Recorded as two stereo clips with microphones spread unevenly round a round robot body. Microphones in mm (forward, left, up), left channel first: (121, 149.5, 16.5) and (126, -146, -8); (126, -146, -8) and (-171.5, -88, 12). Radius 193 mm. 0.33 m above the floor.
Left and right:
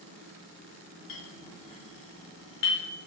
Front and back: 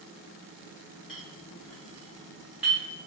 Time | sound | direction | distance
1.1 | a clink | 80° left | 0.8 m